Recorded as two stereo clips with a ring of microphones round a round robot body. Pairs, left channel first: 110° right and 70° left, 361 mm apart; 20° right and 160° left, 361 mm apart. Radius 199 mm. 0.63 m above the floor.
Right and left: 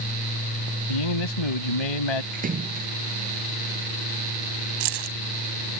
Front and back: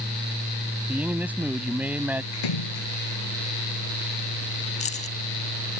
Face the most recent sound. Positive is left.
turn(degrees=50)